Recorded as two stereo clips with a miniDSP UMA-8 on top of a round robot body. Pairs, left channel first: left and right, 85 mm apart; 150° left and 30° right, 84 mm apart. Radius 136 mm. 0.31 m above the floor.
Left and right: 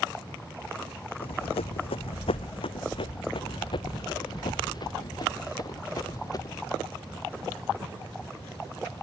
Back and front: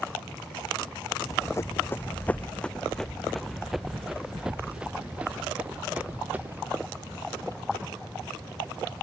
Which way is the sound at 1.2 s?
100° left.